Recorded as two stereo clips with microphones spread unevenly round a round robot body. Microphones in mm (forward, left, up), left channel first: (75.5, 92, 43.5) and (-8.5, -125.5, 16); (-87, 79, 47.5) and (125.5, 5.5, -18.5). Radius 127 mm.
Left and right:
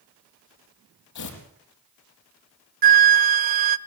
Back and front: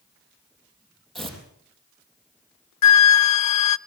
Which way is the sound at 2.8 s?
165° right.